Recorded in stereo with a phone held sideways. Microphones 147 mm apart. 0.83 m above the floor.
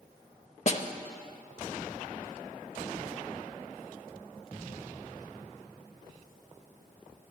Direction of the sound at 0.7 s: 50° left (ahead or behind).